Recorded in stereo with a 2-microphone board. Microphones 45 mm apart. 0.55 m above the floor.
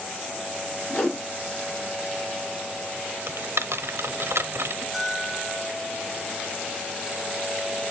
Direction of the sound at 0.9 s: 25° left (ahead or behind).